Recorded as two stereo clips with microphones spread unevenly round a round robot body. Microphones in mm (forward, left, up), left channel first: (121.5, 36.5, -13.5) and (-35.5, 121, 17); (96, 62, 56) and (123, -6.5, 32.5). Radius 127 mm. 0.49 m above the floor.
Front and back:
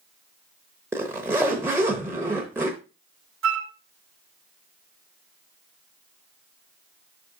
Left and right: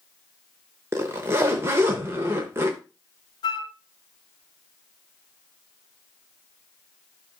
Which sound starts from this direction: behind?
A flute, at 3.4 s.